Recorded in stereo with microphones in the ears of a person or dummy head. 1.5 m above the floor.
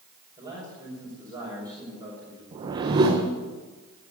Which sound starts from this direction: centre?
A man speaking, at 0.4 s.